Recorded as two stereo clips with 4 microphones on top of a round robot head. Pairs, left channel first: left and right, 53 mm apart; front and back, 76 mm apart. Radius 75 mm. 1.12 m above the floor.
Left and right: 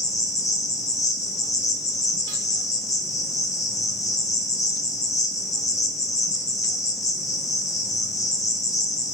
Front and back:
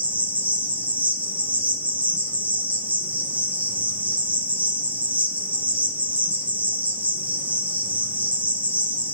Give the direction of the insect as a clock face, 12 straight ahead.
8 o'clock.